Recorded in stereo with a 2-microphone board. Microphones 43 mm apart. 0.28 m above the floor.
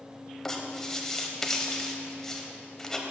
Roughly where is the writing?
Centre.